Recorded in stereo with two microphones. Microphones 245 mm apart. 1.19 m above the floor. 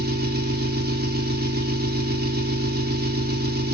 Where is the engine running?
40° right (ahead or behind), 1.4 m.